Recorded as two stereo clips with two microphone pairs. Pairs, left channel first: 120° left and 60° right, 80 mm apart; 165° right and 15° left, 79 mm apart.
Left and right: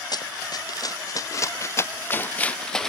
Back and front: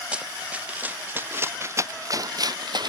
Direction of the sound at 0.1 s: 90° left.